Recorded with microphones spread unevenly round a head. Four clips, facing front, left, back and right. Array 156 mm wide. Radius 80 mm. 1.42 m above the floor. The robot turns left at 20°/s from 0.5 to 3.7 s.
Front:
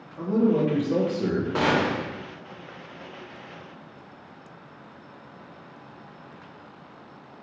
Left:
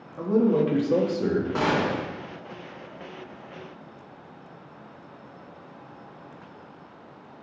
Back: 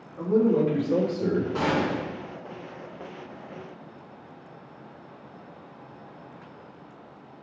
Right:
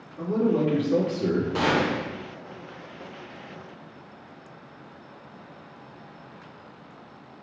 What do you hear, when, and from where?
0.2 s a man speaking: 60° left, 1.4 m; by 1.4 s 40° left, 1.4 m
1.6 s a gunshot: 10° left, 1.5 m; by 2.1 s straight ahead, 1.5 m